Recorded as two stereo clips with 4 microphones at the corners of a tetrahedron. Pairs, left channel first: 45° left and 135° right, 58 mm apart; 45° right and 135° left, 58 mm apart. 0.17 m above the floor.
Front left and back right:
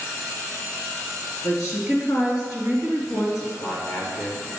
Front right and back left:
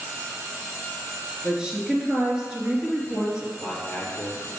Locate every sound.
1.4 s a woman speaking: 60° left, 3 m
3.6 s a man speaking: 20° left, 3 m